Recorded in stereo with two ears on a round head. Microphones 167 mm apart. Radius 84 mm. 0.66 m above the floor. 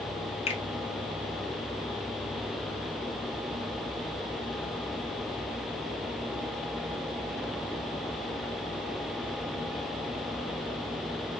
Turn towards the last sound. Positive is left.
turn(degrees=35)  # may be behind; listen again after turning